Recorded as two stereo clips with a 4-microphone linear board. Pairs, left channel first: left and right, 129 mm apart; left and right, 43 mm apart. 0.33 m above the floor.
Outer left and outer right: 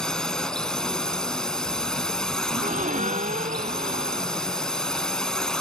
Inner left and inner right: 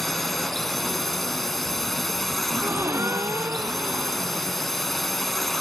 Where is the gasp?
80° right.